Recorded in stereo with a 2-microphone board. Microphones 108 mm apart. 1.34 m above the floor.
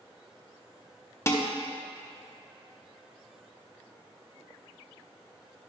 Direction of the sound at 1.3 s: 25° left (ahead or behind).